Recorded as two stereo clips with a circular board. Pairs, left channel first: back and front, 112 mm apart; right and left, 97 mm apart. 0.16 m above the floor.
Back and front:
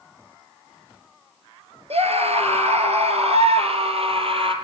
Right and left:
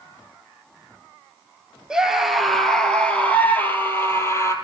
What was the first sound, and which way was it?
A scream, 10° left.